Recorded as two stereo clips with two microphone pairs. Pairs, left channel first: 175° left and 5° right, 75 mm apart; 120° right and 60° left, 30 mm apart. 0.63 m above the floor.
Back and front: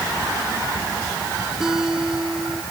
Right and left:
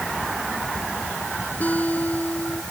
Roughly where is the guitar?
Right.